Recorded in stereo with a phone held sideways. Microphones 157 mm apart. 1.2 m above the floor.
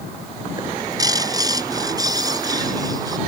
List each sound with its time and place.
0.6 s a bird: 25° right (ahead or behind)